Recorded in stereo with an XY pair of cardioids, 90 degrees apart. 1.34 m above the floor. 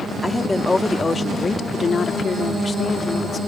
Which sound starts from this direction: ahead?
A woman speaking, at 0.2 s.